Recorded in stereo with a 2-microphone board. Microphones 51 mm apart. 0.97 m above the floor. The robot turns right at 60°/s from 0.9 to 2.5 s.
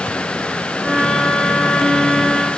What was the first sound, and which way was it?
Only background noise.